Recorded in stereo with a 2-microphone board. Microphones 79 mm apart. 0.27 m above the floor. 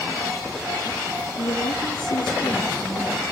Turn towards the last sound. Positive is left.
turn(degrees=75)  # may be behind; listen again after turning